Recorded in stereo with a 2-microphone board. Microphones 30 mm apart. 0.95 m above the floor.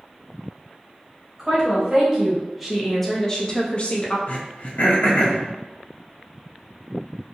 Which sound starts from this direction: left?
Throat clearing, at 4.3 s.